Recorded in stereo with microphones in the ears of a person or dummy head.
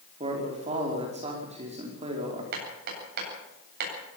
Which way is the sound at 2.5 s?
50° right (ahead or behind).